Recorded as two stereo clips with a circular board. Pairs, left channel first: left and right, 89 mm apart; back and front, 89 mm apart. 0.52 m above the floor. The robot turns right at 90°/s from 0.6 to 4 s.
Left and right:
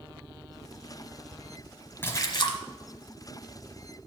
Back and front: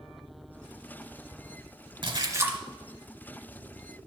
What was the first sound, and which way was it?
A splash, 25° left.